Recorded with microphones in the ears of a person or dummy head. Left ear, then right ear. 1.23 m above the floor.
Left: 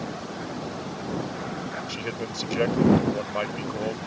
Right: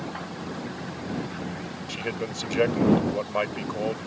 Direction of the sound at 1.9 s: 20° right (ahead or behind).